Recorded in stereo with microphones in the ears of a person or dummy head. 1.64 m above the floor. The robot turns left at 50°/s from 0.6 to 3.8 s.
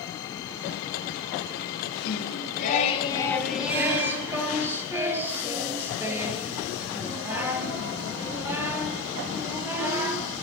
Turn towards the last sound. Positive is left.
turn(degrees=-15)